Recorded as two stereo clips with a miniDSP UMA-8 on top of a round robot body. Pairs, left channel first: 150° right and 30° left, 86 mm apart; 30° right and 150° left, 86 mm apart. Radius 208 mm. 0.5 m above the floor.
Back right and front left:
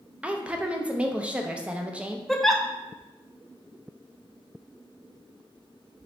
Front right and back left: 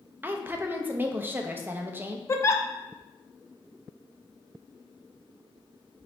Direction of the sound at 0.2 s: 100° left.